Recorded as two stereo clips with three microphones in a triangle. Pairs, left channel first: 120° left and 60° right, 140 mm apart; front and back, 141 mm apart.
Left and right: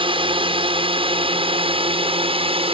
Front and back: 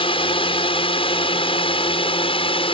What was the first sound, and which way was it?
A drone, 30° right.